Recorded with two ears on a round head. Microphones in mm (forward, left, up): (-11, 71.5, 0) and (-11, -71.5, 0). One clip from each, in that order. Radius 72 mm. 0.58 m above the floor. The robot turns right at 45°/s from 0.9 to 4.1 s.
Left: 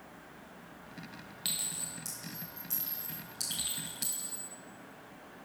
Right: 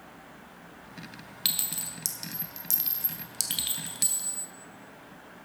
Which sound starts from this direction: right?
A clink, at 1.4 s.